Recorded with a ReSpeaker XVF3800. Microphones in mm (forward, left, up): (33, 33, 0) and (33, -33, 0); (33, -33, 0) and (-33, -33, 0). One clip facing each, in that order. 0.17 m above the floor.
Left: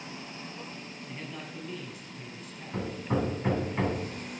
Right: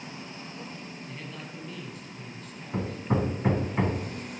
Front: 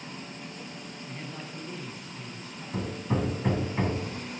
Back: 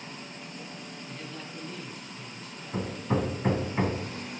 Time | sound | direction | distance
1.1 | a man speaking | 20° left | 1.4 m
2.7 | hammering | 140° right | 0.8 m